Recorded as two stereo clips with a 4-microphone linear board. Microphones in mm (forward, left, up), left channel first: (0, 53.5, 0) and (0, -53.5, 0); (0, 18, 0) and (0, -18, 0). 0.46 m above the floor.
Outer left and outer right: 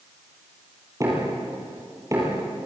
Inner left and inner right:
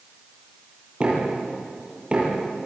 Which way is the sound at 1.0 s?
30° right (ahead or behind).